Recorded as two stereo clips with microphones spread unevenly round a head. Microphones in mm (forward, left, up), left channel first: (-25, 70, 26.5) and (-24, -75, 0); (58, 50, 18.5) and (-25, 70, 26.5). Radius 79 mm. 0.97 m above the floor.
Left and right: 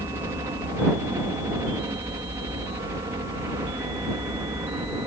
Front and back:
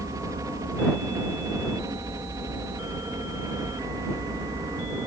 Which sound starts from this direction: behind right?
A helicopter, at 0.0 s.